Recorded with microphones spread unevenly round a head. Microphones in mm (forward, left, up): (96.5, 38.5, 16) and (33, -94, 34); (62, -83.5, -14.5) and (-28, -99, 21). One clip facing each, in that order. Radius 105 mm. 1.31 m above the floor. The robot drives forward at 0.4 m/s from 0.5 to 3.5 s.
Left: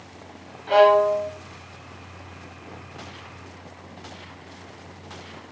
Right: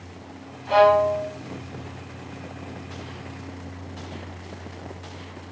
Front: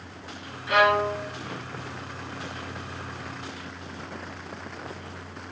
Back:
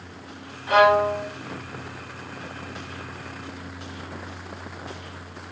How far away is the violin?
About 1.0 m.